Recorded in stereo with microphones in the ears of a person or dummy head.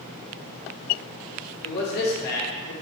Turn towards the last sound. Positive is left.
turn(degrees=60)  # may be behind; listen again after turning